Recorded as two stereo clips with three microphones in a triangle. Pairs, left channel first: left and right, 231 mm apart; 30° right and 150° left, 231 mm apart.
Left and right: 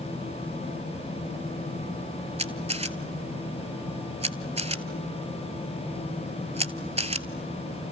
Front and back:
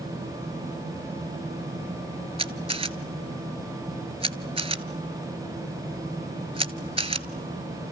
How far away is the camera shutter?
About 0.8 m.